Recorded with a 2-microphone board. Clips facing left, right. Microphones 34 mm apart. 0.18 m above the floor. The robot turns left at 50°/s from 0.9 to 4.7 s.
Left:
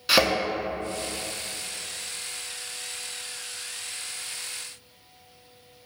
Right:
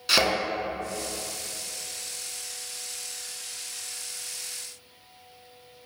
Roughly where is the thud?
Centre.